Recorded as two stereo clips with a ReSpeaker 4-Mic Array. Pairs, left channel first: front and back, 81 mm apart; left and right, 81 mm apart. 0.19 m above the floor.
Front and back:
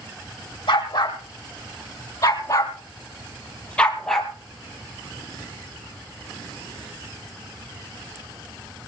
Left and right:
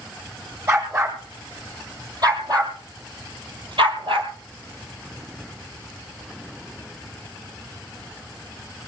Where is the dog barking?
35° right, 3.5 m; by 4.3 s 90° right, 2 m.